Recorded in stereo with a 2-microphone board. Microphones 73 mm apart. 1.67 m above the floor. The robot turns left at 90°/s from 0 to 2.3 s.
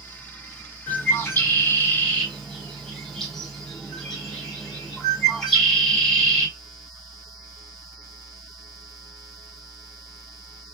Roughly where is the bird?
Centre.